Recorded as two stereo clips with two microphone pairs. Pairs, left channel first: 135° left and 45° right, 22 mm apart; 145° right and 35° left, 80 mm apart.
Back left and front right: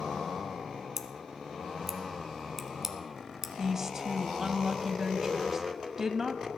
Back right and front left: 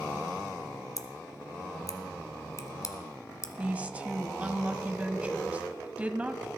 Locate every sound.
1.0 s scissors: 110° right, 1.3 m
3.6 s a woman speaking: straight ahead, 1.0 m